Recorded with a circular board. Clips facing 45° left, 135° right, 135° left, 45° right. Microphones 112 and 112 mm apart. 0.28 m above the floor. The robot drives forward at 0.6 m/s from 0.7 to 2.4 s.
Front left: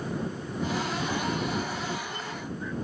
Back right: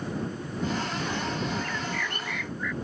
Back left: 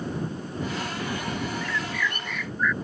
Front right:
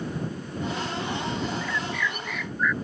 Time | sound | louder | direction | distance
1.6 | a bird | even, even | 130° right | ?